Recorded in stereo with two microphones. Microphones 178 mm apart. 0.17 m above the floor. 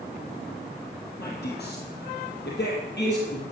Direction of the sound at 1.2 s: 65° left (ahead or behind).